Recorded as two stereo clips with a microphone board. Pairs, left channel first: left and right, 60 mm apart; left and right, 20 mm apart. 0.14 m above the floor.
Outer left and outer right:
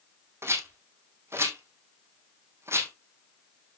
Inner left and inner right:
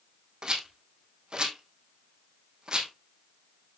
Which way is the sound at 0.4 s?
45° right (ahead or behind).